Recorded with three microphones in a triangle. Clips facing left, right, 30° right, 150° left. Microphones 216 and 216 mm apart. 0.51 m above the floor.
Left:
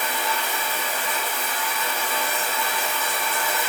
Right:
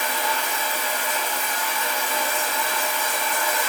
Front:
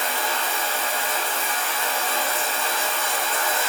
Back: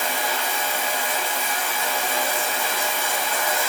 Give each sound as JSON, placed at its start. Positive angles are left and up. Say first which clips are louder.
{"t": 0.0, "sound": "running water", "louder": "right 1 dB, back 1 dB", "azimuth_deg": -135, "distance_m": 2.0}